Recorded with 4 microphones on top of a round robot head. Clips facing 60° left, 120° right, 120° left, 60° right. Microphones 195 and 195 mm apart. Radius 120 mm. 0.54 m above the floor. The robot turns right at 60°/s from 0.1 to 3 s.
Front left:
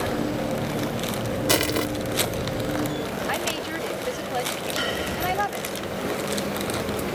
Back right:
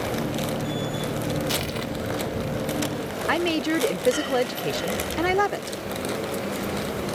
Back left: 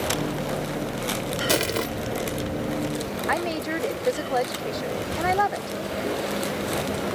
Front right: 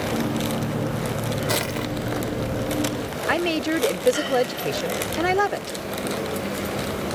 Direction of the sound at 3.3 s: 110° right.